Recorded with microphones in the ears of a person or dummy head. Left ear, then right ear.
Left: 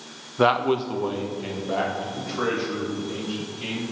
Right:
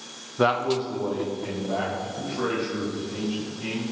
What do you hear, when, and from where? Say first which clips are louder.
0.4 s a man speaking: left 2 dB; 10° left (ahead or behind), 0.5 m; by 3.8 s 80° left, 5 m